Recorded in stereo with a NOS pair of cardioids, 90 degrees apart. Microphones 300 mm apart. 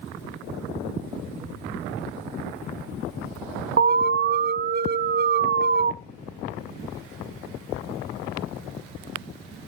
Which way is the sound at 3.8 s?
35° right.